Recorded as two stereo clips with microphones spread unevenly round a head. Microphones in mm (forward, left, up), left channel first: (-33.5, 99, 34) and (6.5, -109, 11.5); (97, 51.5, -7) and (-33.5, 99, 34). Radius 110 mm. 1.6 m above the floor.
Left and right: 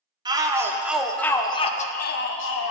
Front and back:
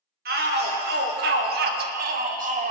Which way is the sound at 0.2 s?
150° right.